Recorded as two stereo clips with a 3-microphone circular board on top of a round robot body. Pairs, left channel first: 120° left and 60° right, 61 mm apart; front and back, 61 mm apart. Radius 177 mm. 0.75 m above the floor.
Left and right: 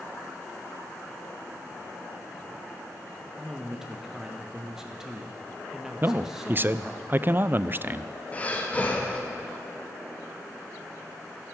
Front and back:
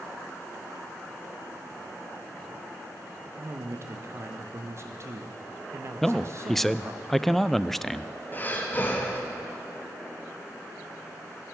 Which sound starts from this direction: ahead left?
Breathing, at 8.3 s.